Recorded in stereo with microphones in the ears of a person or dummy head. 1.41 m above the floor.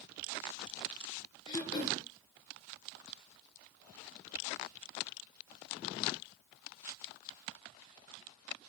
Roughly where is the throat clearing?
Left.